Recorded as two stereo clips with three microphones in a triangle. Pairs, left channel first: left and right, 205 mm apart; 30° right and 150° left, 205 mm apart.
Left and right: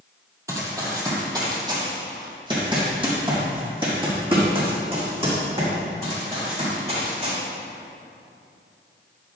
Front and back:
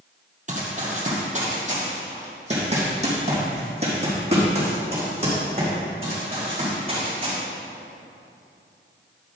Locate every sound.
0.5 s running footsteps: 165° right, 2.5 m; by 7.3 s 150° right, 6 m